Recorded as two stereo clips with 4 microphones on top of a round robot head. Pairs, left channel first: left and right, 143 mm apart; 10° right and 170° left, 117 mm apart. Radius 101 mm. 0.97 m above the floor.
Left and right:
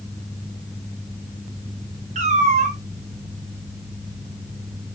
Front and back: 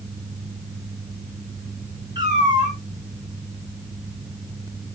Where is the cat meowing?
120° right, 1.3 m.